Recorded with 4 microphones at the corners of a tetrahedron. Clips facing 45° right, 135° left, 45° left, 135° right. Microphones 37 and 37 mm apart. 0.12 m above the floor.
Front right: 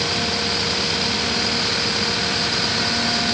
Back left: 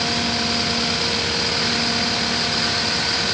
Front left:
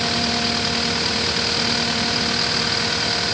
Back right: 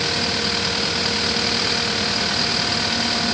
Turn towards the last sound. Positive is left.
No sound to turn to.